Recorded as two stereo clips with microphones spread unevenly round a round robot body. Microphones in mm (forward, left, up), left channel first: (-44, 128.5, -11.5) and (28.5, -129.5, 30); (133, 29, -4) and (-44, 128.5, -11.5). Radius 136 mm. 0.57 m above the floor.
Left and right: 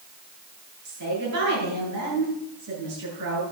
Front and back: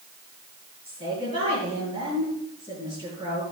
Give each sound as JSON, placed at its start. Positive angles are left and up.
{"t": 0.8, "sound": "a woman speaking", "azimuth_deg": -100, "distance_m": 8.5}